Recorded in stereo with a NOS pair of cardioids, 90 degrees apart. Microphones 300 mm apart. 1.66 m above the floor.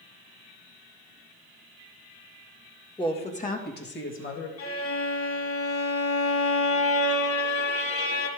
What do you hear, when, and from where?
3.0 s a woman speaking: 15° left, 2 m; by 4.5 s 50° left, 2.5 m
4.6 s a violin: 50° left, 3 m